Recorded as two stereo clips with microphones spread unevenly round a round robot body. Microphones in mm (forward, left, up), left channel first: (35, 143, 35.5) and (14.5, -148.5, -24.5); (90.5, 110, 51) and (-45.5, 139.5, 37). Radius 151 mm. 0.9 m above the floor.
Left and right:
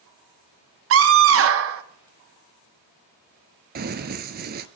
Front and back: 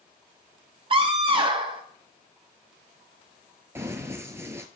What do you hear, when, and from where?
0.9 s a scream: 135° right, 1.3 m
3.8 s running footsteps: 130° right, 0.9 m